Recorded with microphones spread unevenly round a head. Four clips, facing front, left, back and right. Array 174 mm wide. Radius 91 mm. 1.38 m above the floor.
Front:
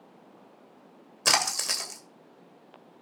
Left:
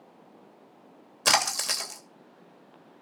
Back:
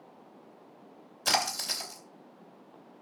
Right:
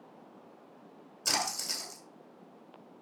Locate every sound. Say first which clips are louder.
1.2 s a splash: left 8 dB, front 2 dB; 60° left, 2.5 m